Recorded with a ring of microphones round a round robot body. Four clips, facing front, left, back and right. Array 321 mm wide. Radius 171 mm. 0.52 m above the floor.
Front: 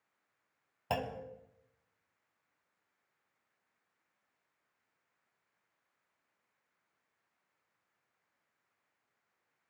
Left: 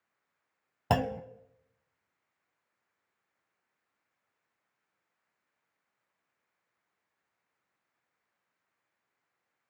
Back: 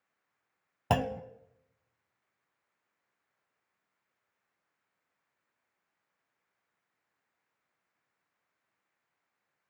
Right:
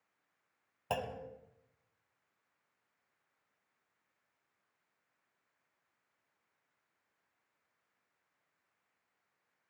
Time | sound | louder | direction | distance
0.9 | a clunk | left 9 dB, back 7 dB | 130° left | 0.8 m